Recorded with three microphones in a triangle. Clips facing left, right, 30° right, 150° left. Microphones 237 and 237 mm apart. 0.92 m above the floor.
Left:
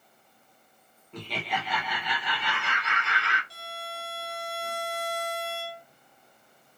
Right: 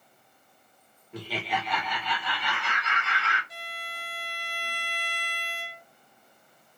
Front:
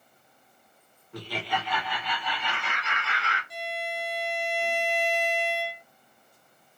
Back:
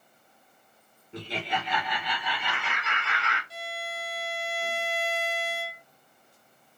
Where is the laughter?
165° right, 1.0 m; by 3.4 s 55° left, 1.1 m.